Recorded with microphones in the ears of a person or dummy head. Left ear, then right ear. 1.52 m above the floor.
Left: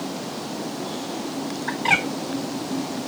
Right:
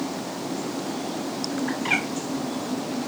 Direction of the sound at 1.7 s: 35° left (ahead or behind).